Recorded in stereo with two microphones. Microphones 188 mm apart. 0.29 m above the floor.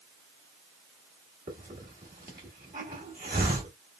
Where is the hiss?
50° right (ahead or behind), 1.2 m.